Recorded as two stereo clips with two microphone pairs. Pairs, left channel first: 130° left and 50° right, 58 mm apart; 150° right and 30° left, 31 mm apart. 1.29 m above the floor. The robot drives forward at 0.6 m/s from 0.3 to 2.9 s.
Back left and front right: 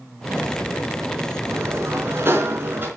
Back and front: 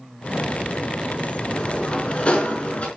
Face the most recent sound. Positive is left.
turn(degrees=-100)